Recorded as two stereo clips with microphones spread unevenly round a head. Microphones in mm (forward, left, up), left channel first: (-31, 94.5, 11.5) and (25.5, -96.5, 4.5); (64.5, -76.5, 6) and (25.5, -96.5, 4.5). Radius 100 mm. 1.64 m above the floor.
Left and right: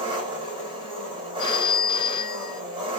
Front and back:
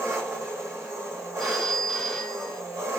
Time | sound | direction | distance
0.0 | an engine running | 140° right | 3 m
1.4 | a phone ringing | 120° left | 0.6 m